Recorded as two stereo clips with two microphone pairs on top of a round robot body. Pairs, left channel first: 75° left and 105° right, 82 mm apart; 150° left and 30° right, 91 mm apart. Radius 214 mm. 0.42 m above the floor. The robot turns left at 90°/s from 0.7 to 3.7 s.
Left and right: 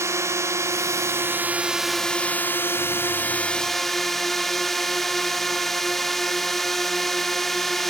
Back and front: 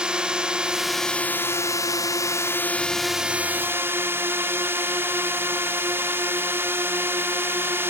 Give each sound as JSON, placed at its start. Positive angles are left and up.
{"t": 0.0, "sound": "a drone", "azimuth_deg": -90}